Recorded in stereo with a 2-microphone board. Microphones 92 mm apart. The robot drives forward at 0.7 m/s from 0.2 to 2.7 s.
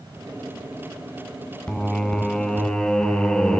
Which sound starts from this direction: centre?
Singing, at 1.7 s.